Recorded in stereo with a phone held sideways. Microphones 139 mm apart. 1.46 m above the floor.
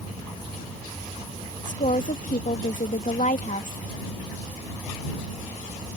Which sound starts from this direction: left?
A woman speaking, at 1.6 s.